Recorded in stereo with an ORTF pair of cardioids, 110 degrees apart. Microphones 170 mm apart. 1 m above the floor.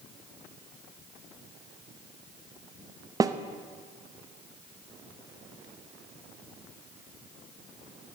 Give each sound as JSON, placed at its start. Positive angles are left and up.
{"t": 3.2, "sound": "a snare drum", "azimuth_deg": -20, "distance_m": 0.7}